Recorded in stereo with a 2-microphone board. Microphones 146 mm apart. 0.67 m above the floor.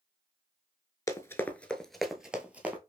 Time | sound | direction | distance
1.1 | running footsteps | 20° left (ahead or behind) | 0.6 m